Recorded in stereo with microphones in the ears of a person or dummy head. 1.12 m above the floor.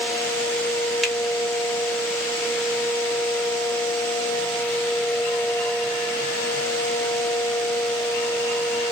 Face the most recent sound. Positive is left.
turn(degrees=0)  # may be behind; listen again after turning